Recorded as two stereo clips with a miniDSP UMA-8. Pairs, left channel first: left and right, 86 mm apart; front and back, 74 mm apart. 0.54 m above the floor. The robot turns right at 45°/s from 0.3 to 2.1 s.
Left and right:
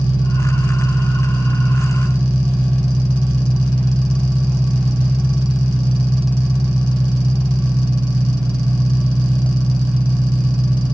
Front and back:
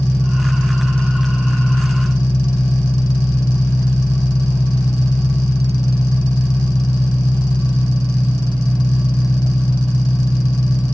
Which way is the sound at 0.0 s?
65° right.